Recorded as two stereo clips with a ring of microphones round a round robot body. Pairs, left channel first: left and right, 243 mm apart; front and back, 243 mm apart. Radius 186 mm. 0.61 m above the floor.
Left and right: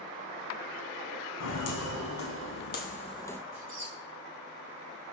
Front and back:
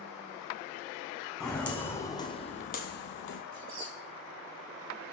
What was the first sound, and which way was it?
Footsteps, 90° left.